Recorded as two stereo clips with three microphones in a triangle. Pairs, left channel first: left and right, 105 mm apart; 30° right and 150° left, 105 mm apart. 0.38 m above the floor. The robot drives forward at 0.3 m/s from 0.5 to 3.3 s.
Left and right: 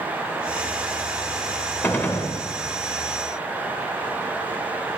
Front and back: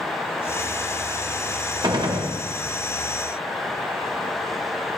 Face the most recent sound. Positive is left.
turn(degrees=165)